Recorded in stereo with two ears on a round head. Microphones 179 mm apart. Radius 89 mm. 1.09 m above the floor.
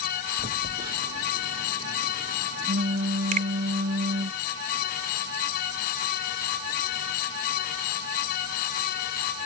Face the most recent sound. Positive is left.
turn(degrees=-40)  # may be behind; listen again after turning